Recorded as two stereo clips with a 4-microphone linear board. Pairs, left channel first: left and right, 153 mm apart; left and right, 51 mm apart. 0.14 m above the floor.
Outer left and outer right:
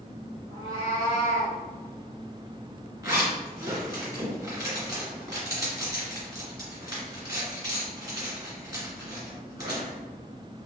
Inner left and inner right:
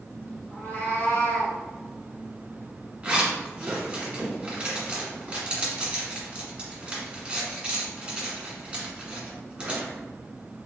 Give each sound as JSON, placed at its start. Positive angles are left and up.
{"t": 0.5, "sound": "a cat meowing", "side_deg": 25, "distance_m": 1.5}
{"t": 3.0, "sound": "a zipper", "side_deg": -20, "distance_m": 1.7}